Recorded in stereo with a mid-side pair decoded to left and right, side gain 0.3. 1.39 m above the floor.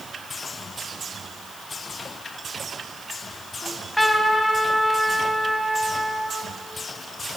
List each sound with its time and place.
3.6 s a trumpet: 15° left, 3.5 m